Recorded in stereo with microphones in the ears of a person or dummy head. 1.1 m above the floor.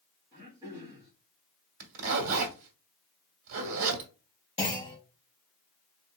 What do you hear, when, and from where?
0.3 s throat clearing: 25° right (ahead or behind), 2 m
1.8 s a zipper: 65° right (ahead or behind), 1.3 m
4.6 s a clunk: 25° left (ahead or behind), 2 m